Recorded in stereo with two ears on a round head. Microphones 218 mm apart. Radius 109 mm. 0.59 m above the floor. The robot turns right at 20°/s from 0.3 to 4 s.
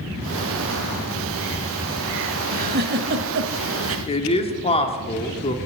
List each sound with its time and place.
2.5 s a giggle: 35° right (ahead or behind), 0.8 m; by 4.0 s 60° right (ahead or behind), 0.8 m
4.1 s a man speaking: 25° left (ahead or behind), 1.3 m